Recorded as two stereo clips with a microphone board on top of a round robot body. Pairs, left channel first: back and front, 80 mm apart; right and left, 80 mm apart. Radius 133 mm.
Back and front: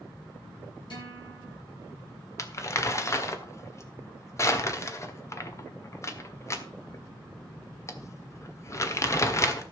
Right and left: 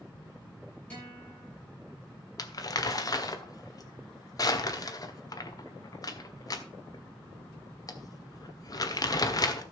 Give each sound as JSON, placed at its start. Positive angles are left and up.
{"t": 0.9, "sound": "a guitar", "azimuth_deg": -165, "distance_m": 9.5}
{"t": 2.4, "sound": "crumpling", "azimuth_deg": -130, "distance_m": 1.6}